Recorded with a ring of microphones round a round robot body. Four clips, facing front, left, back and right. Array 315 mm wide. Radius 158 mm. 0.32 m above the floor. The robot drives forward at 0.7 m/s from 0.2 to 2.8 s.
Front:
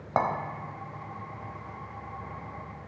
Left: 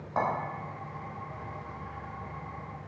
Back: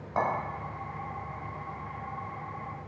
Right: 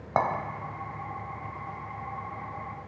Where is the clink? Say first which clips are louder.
Right 4 dB, front 2 dB; 50° right, 1.0 m; by 0.3 s 55° right, 0.9 m.